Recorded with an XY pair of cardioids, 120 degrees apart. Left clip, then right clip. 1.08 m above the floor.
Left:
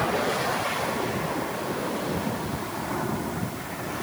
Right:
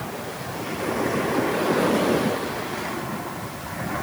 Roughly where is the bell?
I don't hear a bell.